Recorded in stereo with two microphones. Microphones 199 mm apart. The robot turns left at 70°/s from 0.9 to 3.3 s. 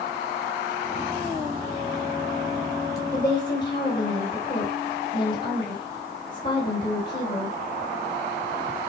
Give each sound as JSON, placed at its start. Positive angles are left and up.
{"t": 3.1, "sound": "a woman speaking", "side_deg": 10, "distance_m": 4.0}